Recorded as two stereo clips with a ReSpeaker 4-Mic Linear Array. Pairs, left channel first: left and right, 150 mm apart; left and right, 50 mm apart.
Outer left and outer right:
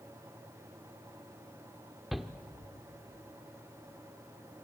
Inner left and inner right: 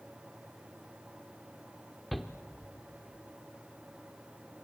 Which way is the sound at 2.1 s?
Centre (ahead or behind).